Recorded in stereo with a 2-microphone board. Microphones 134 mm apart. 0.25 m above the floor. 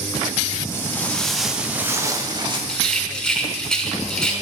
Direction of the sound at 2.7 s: 5° left (ahead or behind).